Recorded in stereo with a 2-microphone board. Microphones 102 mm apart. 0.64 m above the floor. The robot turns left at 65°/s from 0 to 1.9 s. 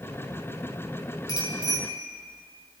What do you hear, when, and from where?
1.3 s a bicycle bell: 145° left, 4.5 m; by 1.8 s 110° left, 4.5 m